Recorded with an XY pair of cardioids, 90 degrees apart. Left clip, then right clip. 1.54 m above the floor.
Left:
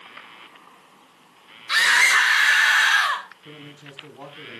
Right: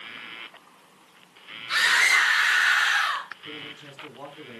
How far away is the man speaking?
About 5 m.